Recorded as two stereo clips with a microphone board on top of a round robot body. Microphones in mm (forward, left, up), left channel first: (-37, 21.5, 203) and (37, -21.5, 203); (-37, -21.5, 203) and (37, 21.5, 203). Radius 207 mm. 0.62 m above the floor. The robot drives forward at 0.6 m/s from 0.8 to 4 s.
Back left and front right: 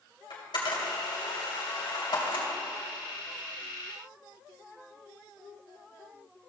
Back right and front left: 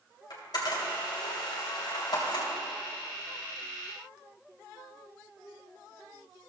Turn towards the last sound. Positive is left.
turn(degrees=175)